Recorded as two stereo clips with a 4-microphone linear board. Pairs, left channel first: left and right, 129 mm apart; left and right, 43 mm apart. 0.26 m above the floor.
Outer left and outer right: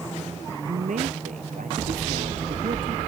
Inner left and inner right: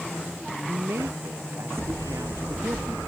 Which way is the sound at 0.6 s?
85° right.